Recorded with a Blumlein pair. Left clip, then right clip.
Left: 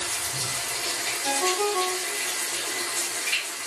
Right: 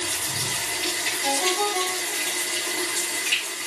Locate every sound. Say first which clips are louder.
0.0 s running water: right 2 dB; 40° right, 3 m
1.2 s a ringtone: right 1 dB; 40° right, 2 m